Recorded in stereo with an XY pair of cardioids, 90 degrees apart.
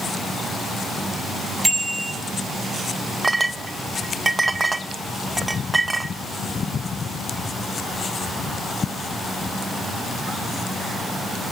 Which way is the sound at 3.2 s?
20° right.